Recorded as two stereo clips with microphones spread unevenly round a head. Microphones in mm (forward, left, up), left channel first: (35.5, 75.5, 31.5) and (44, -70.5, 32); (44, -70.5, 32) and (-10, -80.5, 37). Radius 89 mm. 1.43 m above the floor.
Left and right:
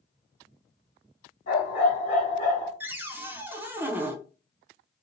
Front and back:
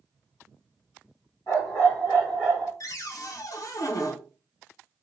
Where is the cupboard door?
10° right, 0.6 m.